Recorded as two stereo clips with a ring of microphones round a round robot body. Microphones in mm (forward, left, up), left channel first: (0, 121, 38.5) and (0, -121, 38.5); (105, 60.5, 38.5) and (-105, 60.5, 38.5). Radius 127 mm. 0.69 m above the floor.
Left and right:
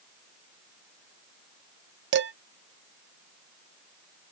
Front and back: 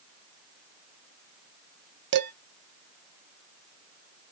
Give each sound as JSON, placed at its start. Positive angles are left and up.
{"t": 2.1, "sound": "dishes clattering", "azimuth_deg": -135, "distance_m": 0.7}